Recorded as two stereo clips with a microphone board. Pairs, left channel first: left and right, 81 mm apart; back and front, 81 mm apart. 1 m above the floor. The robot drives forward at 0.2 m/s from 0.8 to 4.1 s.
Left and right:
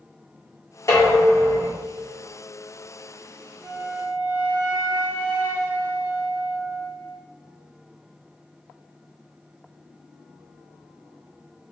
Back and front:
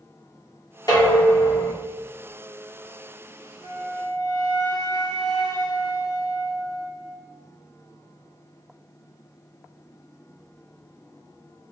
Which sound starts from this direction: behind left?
Dishes clattering, at 0.9 s.